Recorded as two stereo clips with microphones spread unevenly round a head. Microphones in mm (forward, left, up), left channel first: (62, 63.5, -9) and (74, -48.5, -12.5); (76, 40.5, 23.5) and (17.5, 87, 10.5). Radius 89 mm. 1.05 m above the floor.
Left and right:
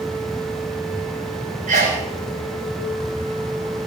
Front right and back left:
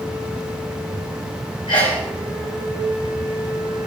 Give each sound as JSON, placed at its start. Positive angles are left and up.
{"t": 1.7, "sound": "a sneeze", "azimuth_deg": -80, "distance_m": 6.5}